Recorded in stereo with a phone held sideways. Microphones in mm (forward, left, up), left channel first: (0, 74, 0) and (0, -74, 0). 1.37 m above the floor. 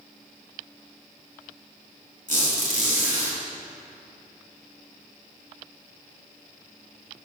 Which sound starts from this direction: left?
A squeak, at 2.3 s.